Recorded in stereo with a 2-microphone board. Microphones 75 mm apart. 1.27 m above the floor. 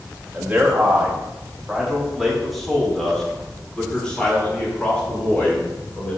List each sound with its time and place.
0.3 s a man speaking: 25° right (ahead or behind), 2.5 m; by 6.2 s 20° left (ahead or behind), 6.5 m